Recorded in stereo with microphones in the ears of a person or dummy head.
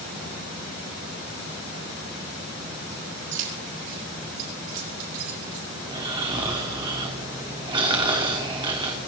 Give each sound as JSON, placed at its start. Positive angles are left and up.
{"t": 3.3, "sound": "keys jangling", "side_deg": -65, "distance_m": 4.0}
{"t": 5.8, "sound": "snoring", "side_deg": -15, "distance_m": 1.3}